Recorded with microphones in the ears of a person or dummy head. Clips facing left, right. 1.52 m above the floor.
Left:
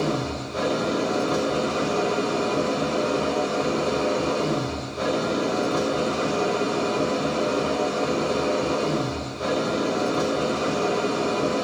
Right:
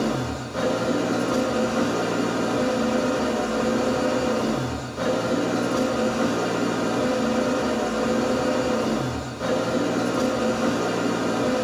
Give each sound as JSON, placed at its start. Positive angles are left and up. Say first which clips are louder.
{"t": 0.0, "sound": "an engine running", "louder": "even", "side_deg": -20, "distance_m": 1.7}